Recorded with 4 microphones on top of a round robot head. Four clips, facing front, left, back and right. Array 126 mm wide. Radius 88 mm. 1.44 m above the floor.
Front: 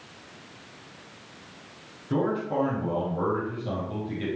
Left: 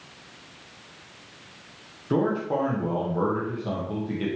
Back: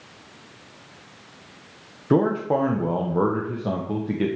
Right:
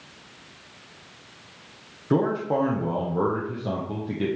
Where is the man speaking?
170° right, 1.3 m.